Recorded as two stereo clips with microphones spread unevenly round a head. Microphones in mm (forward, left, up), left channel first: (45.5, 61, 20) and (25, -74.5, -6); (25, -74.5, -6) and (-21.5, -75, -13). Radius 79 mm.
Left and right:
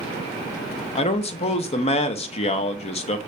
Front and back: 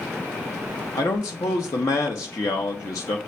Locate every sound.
0.9 s a man speaking: 35° left, 0.6 m